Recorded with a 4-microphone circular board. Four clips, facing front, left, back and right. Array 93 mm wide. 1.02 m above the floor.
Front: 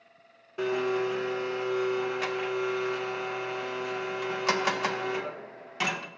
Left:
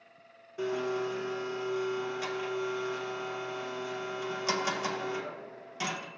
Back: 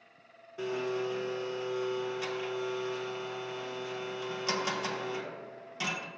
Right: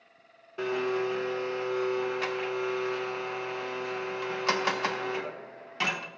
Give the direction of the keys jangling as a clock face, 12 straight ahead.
No keys jangling in this recording.